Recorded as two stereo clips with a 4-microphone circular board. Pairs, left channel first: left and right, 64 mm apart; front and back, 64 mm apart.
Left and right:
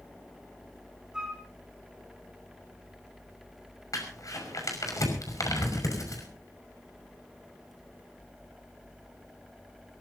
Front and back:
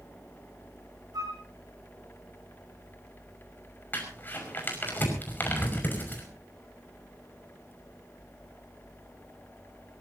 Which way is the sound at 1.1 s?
170° right.